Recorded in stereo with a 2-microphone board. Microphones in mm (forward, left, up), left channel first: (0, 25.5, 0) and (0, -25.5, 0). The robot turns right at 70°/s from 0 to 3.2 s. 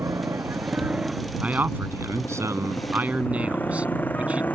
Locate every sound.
0.0 s a motorcycle: 85° right; by 4.6 s 35° left (ahead or behind)
1.4 s a man speaking: 150° right; by 4.5 s 25° right